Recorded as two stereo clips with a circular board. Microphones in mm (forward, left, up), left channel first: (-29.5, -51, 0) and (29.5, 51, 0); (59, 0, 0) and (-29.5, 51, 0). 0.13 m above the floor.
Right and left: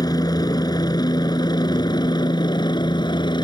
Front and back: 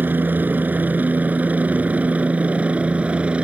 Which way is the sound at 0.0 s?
150° right.